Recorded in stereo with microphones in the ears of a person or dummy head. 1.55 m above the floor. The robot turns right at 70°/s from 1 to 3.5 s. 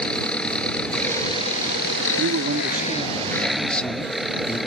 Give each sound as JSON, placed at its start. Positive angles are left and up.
{"t": 0.0, "sound": "an engine running", "azimuth_deg": 5}
{"t": 2.2, "sound": "a man speaking", "azimuth_deg": -85}